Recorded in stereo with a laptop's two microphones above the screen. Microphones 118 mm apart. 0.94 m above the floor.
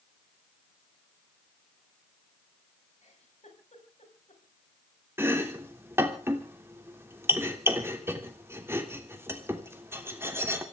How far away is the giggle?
About 5 m.